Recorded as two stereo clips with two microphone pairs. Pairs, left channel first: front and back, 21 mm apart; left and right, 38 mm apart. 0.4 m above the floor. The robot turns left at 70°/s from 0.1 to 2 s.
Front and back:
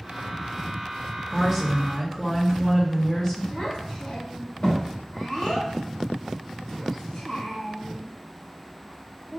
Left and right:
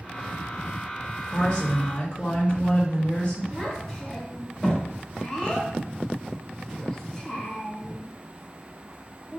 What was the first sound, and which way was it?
A woman speaking, 100° left.